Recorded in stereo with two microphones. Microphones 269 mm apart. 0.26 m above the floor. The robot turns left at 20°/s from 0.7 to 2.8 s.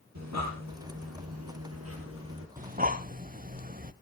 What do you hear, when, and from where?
0.1 s breathing: 80° right, 3.5 m; by 2.5 s 50° right (ahead or behind), 3.5 m
2.6 s breathing: 30° right (ahead or behind), 0.7 m; by 3.9 s 35° right (ahead or behind), 0.7 m